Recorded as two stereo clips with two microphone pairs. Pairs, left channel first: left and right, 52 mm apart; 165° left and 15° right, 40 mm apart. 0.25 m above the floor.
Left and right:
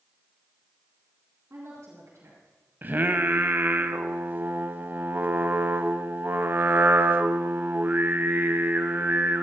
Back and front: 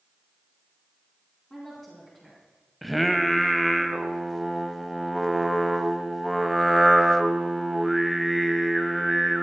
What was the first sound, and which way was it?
A woman speaking, 120° right.